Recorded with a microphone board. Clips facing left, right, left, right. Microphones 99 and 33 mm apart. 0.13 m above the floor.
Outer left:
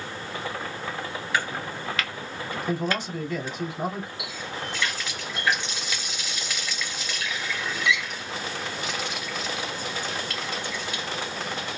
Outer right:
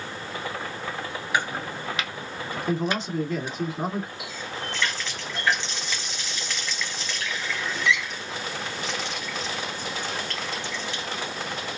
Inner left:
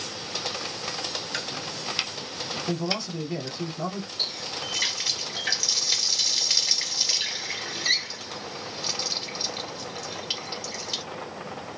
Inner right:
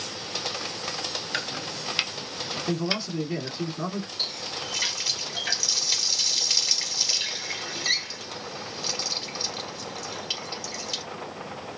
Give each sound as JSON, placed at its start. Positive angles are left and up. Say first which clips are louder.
{"t": 1.3, "sound": "chopping", "louder": "outer right 1 dB, inner right 1 dB", "side_deg": -20, "distance_m": 0.5}
{"t": 2.7, "sound": "a man speaking", "louder": "outer right 2 dB, inner right 1 dB", "side_deg": -25, "distance_m": 1.3}
{"t": 4.2, "sound": "a running tap", "louder": "even, inner left 3 dB", "side_deg": 10, "distance_m": 1.6}